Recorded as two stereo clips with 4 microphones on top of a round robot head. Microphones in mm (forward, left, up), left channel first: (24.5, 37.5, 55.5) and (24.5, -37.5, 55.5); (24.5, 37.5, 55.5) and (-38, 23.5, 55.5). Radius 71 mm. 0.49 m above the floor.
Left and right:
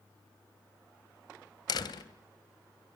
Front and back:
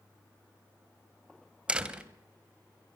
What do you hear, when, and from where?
1.7 s a door slam: 120° left, 2.5 m